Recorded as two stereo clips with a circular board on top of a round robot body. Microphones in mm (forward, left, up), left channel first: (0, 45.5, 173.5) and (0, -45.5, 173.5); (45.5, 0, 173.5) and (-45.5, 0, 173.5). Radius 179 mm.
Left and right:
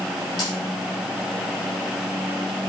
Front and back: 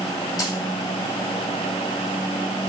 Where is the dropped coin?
50° left, 6.5 m.